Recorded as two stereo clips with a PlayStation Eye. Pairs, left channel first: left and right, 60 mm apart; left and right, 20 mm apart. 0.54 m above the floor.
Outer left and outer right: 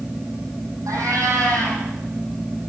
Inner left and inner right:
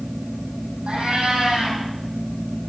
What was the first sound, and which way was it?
A cat meowing, 70° right (ahead or behind).